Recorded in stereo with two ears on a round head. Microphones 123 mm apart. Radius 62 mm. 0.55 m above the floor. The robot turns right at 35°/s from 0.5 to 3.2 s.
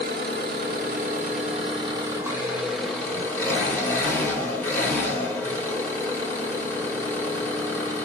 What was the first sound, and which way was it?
An engine running, 80° right.